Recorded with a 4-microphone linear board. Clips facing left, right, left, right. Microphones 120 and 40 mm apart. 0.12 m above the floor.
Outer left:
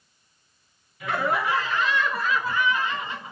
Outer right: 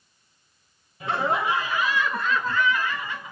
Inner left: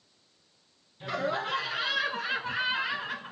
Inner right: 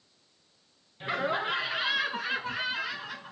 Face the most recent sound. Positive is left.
turn(degrees=35)  # may be behind; listen again after turning